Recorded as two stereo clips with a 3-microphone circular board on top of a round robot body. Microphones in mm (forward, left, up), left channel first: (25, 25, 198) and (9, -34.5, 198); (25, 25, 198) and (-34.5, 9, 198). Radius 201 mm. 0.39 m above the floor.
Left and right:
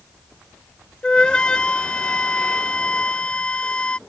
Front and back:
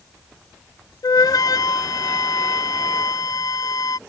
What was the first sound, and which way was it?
A flute, straight ahead.